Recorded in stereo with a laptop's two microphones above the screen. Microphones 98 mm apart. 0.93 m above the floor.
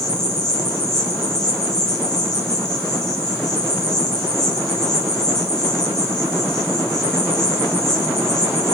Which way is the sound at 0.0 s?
5° left (ahead or behind).